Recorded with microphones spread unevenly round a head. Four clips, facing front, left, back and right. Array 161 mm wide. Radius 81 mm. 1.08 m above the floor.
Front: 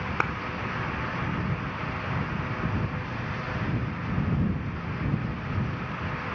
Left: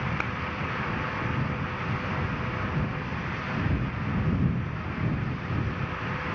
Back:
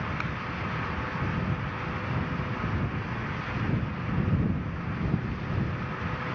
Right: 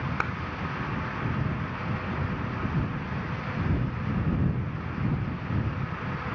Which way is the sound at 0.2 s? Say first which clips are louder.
Right 2 dB, front 6 dB; 5° left.